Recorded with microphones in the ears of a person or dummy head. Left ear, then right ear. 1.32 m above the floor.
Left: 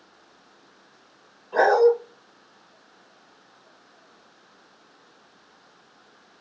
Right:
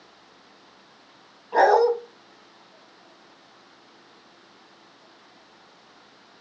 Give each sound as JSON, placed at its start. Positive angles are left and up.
{"t": 1.5, "sound": "a dog barking", "side_deg": -30, "distance_m": 2.5}